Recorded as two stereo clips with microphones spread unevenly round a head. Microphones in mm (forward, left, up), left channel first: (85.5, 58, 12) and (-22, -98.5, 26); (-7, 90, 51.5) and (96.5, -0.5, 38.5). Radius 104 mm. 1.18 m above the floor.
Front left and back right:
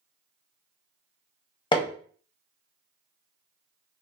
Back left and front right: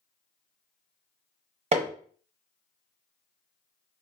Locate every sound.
1.7 s hammering: 10° right, 0.8 m